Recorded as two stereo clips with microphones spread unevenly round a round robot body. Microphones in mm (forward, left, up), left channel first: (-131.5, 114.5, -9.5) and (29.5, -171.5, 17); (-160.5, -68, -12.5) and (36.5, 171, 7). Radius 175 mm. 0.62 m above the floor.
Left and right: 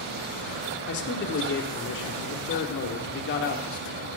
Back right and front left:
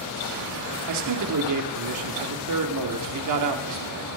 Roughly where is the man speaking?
Left.